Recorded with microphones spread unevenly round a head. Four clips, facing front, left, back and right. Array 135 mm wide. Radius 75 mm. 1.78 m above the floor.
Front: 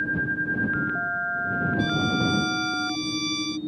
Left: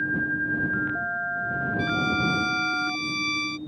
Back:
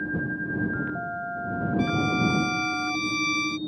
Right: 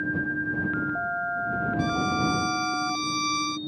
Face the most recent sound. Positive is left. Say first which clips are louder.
# left 1 dB, back 2 dB
turn(degrees=-130)